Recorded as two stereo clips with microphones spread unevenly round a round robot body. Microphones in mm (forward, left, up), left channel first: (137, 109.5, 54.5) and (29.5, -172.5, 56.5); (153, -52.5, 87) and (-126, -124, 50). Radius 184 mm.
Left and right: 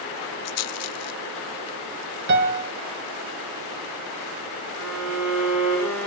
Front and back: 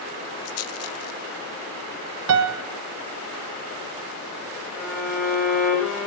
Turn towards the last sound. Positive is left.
turn(degrees=-80)